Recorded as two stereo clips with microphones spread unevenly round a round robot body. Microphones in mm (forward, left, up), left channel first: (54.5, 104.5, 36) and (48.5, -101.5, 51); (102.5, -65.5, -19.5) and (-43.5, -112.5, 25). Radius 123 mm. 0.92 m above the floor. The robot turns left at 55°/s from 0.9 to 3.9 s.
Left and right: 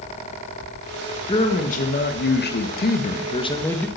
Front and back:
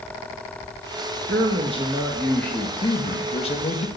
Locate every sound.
1.3 s a man speaking: 150° left, 1.3 m; by 3.9 s 10° left, 1.3 m